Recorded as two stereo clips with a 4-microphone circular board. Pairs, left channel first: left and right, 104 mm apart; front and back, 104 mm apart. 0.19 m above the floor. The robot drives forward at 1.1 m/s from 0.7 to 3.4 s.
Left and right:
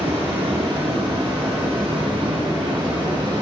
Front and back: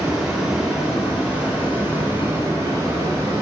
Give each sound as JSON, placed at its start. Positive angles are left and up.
{"t": 0.0, "sound": "running water", "azimuth_deg": -95, "distance_m": 4.5}